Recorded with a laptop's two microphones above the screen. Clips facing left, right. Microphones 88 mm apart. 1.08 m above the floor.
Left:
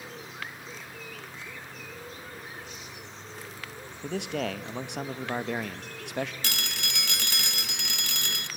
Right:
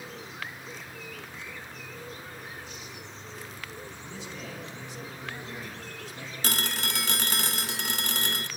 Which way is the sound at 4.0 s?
70° left (ahead or behind).